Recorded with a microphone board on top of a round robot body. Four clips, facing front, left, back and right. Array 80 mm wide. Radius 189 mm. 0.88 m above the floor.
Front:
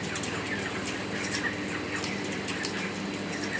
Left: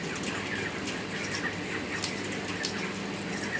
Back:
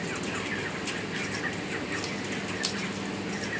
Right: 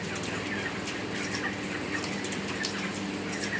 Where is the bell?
I don't hear a bell.